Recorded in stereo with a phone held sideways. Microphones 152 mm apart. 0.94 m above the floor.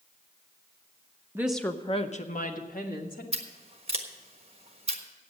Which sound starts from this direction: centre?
A woman speaking, at 1.4 s.